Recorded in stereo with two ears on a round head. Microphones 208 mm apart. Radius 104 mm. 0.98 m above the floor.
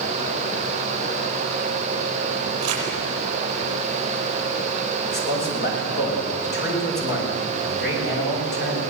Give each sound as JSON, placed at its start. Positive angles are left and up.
{"t": 2.6, "sound": "crumpling", "side_deg": -65, "distance_m": 6.0}
{"t": 5.0, "sound": "a man speaking", "side_deg": 45, "distance_m": 6.0}